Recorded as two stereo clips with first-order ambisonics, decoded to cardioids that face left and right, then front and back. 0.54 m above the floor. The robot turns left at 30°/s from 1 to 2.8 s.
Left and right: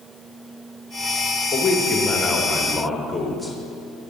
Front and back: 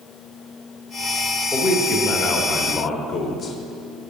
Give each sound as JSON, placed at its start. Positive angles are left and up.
{"t": 1.5, "sound": "a man speaking", "azimuth_deg": 45, "distance_m": 0.8}